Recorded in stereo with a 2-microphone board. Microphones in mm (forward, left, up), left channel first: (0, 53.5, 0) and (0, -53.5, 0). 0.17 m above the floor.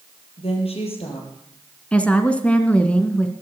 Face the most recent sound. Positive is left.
turn(degrees=10)  # may be behind; listen again after turning